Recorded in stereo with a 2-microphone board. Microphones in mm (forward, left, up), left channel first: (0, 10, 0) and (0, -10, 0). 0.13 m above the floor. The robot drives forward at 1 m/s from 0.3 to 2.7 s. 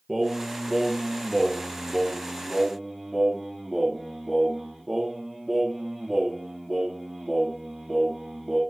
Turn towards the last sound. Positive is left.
turn(degrees=0)  # may be behind; listen again after turning